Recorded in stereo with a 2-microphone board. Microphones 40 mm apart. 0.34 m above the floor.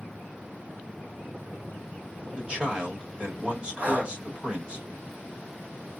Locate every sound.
2.4 s a man speaking: 25° right (ahead or behind), 1.4 m
3.8 s breathing: 45° right (ahead or behind), 1.4 m